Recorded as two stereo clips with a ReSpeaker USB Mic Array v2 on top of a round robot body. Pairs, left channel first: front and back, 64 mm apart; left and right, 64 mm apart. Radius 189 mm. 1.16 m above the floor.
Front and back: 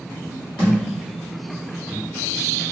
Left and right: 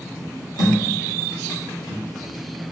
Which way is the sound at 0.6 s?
75° left.